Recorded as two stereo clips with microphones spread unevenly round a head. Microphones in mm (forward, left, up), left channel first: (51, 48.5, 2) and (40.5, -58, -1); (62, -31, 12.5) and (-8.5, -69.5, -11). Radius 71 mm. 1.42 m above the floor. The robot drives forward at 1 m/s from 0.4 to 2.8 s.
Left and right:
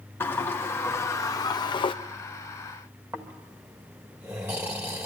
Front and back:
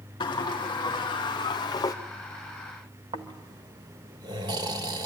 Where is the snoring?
155° right, 1.3 m.